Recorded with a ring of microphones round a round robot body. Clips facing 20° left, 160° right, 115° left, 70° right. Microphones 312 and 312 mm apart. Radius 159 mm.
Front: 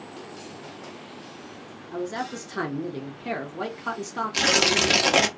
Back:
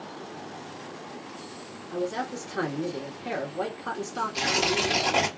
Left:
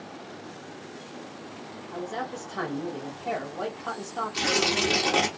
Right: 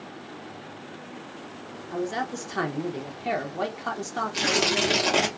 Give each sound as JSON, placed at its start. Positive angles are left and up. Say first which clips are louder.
{"t": 1.9, "sound": "a man speaking", "louder": "back 1 dB, right 5 dB", "azimuth_deg": -55, "distance_m": 0.9}
{"t": 4.3, "sound": "tearing paper", "louder": "front 4 dB, right 1 dB", "azimuth_deg": 20, "distance_m": 0.9}